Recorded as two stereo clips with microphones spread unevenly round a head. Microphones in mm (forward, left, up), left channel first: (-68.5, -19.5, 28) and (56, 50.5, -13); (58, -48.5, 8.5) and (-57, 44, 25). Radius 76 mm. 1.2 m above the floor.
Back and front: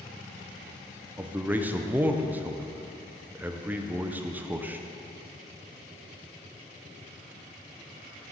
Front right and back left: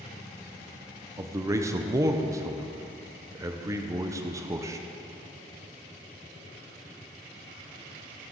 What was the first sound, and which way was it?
A man speaking, 75° left.